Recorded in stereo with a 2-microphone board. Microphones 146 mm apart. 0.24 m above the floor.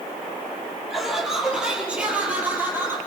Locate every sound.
0.9 s laughter: centre (ahead or behind), 7.5 m; by 3.0 s 15° right (ahead or behind), 7.5 m